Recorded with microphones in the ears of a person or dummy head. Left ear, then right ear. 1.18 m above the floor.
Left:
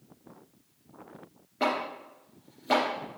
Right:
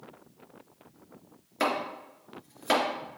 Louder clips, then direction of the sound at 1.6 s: Even; 75° right (ahead or behind).